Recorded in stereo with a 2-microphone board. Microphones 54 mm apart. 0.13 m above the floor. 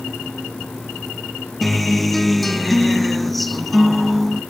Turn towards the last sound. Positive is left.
turn(degrees=5)  # may be behind; listen again after turning